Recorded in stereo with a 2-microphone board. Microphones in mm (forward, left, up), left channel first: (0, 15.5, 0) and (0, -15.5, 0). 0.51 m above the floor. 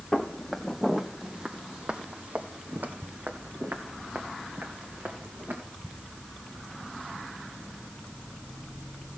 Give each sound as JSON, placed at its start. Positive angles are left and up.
{"t": 0.1, "sound": "footsteps", "side_deg": 10, "distance_m": 1.2}